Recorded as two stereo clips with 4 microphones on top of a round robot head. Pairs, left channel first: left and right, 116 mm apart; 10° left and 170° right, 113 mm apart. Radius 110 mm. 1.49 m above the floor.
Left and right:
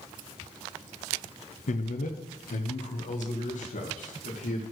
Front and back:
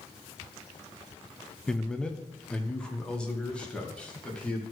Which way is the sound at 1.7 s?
95° left.